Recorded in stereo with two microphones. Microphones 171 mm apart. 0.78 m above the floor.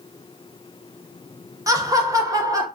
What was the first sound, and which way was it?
Laughter, 20° right (ahead or behind).